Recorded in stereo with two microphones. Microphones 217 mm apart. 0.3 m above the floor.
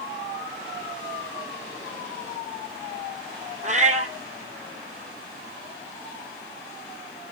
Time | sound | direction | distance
3.6 | a cat meowing | 35° right (ahead or behind) | 1.7 m